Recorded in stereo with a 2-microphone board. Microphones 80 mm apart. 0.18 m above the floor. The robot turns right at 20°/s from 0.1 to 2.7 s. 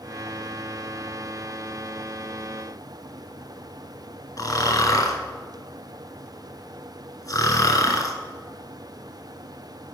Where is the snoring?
50° left (ahead or behind), 1.3 m.